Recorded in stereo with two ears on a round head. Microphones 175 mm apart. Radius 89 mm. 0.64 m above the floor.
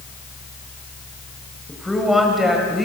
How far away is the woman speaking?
About 3 m.